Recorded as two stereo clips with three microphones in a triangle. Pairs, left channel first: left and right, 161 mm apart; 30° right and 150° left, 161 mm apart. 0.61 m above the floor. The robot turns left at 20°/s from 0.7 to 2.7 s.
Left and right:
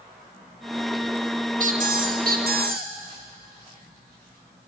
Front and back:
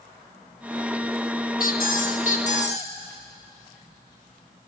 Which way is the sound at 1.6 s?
55° right.